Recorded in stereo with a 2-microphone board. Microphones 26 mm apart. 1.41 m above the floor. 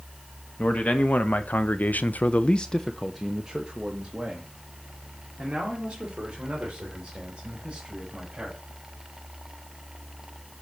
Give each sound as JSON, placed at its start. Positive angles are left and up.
{"t": 0.6, "sound": "a man speaking", "side_deg": 60, "distance_m": 1.3}